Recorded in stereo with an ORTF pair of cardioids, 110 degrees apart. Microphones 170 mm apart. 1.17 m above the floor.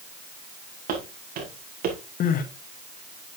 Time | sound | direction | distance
0.9 | footsteps | 60° right | 6 m
2.2 | crying | 55° left | 1.6 m